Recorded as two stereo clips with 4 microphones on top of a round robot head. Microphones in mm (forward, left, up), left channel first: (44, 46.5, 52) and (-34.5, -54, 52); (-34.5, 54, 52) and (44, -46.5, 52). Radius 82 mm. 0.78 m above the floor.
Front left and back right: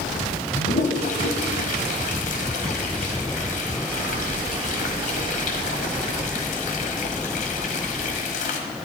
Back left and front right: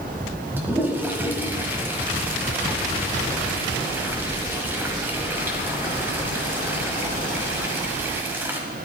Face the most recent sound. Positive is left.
turn(degrees=25)